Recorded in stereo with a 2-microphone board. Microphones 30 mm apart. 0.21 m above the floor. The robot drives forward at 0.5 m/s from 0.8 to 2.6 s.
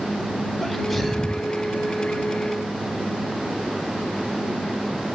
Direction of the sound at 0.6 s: 5° left (ahead or behind).